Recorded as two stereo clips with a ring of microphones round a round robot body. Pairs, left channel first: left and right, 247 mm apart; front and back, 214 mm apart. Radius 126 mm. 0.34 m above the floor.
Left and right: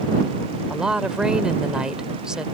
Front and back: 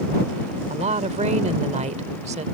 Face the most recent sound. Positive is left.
turn(degrees=-175)